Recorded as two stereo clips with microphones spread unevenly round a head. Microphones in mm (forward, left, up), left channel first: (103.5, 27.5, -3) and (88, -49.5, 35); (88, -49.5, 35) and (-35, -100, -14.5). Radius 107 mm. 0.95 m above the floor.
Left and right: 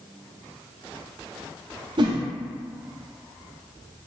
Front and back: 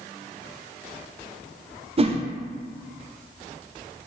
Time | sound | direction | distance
2.0 | a whoosh | 105° right | 0.7 m